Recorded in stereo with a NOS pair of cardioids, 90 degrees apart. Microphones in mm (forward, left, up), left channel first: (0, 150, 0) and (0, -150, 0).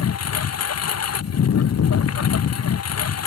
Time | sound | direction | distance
0.0 | a lawn mower | 55° left | ?